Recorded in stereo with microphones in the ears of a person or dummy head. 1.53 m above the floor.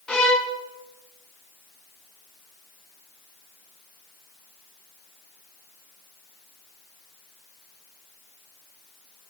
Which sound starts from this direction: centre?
A violin, at 0.1 s.